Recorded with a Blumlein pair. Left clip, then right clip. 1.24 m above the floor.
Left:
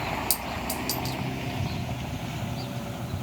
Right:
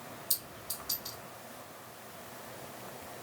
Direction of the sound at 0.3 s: 40° left.